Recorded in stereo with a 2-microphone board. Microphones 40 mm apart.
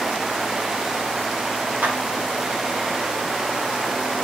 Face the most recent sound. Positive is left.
turn(degrees=-50)  # may be behind; listen again after turning